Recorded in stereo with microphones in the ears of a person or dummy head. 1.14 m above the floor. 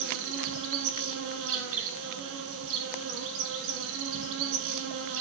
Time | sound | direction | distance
0.0 | an insect | 70° right (ahead or behind) | 4.5 m